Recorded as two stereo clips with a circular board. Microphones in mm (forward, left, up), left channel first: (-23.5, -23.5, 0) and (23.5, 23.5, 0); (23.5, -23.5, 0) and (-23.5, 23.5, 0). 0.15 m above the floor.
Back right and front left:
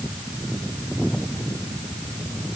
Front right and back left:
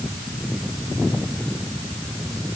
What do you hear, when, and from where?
Only background noise.